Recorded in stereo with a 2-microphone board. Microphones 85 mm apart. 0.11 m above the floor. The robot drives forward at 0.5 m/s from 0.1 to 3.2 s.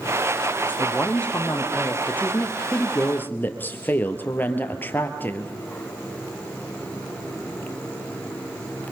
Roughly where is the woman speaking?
Centre.